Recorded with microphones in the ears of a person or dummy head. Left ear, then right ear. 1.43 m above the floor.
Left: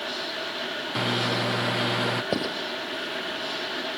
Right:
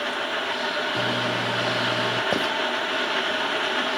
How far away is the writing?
About 2 m.